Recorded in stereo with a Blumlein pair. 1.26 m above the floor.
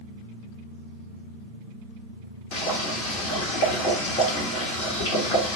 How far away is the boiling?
About 1.2 m.